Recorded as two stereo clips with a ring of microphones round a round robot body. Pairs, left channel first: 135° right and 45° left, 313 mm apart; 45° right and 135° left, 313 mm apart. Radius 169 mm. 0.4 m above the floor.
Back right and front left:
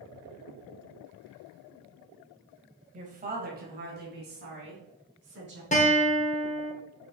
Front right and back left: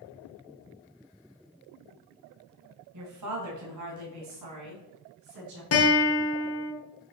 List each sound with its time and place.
2.9 s a woman speaking: 110° left, 2.5 m; by 5.6 s 100° left, 5.5 m
5.7 s a guitar: 75° right, 2 m